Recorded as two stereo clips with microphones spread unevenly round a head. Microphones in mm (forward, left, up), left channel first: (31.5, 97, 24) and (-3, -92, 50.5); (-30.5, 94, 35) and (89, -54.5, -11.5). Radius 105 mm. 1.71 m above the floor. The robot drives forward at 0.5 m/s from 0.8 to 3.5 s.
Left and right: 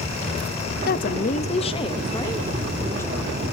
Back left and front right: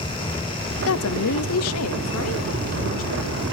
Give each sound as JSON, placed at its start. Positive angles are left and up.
{"t": 0.9, "sound": "a woman speaking", "azimuth_deg": 125, "distance_m": 0.7}